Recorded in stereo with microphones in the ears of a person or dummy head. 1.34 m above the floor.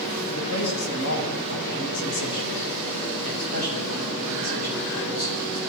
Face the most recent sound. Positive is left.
turn(degrees=90)